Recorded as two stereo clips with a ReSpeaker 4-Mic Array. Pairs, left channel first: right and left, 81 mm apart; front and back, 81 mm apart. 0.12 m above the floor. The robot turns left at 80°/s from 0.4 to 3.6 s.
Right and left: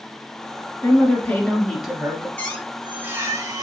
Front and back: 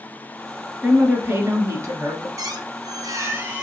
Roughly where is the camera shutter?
No camera shutter in this recording.